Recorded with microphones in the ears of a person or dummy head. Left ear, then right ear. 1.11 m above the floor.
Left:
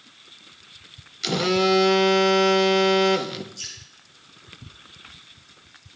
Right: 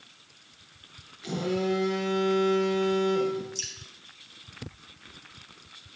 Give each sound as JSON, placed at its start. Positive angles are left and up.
{"t": 1.2, "sound": "a phone buzzing", "side_deg": 55, "distance_m": 0.6}
{"t": 3.5, "sound": "dripping", "side_deg": -75, "distance_m": 4.5}